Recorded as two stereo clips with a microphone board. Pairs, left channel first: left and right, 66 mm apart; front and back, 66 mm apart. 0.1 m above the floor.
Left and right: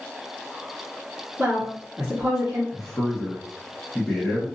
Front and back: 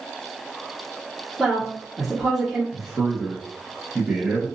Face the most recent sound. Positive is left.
turn(degrees=150)